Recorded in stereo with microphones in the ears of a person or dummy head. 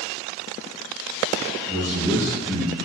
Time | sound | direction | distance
1.7 | a man speaking | 25° right (ahead or behind) | 1.1 m